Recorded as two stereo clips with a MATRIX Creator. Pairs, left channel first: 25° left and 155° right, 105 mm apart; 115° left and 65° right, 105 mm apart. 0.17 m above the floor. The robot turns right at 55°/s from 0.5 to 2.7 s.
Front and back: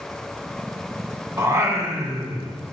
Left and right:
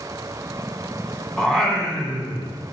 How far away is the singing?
About 1.7 m.